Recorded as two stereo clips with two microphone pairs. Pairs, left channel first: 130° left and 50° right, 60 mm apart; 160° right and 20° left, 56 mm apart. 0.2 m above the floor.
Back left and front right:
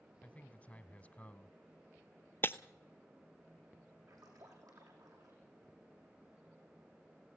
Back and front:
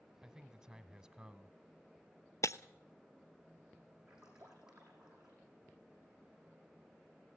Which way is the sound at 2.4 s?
Straight behind.